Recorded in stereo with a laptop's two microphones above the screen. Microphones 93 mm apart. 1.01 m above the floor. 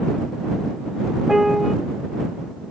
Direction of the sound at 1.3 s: Centre (ahead or behind).